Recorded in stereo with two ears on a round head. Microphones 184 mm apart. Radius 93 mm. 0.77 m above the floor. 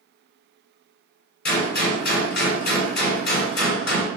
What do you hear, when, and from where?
1.4 s a gunshot: 50° left (ahead or behind), 1.9 m